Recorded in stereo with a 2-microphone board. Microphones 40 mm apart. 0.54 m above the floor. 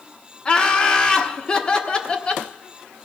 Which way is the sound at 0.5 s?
25° left (ahead or behind).